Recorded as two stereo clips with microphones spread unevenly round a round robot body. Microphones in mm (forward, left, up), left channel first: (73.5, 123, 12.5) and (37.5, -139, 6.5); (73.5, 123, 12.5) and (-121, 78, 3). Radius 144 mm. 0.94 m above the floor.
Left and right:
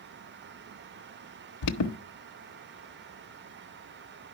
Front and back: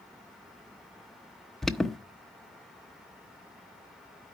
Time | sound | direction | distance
1.6 | an alarm | 100° left | 0.9 m